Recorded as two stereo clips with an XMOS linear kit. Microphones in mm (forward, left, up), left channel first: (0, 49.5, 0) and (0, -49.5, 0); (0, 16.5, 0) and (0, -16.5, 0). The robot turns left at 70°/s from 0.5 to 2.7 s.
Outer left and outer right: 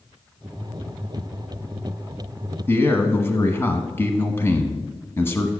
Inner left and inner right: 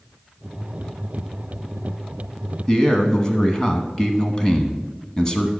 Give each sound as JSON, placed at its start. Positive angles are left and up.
{"t": 2.7, "sound": "a man speaking", "side_deg": 20, "distance_m": 1.1}